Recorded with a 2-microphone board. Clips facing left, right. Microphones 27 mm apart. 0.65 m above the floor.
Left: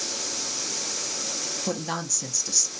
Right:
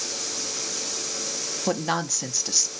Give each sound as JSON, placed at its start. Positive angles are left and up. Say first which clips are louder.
{"t": 1.7, "sound": "a woman speaking", "louder": "right 7 dB", "side_deg": -25, "distance_m": 0.6}